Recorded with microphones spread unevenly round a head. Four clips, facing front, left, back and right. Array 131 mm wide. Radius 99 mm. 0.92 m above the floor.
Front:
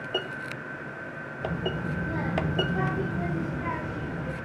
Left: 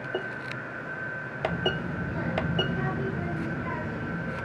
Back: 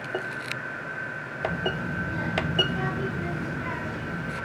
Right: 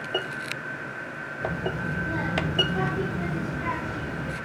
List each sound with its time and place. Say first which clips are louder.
1.4 s a child speaking: even, back 2 dB; 60° right, 2.5 m; by 4.4 s 95° right, 2.5 m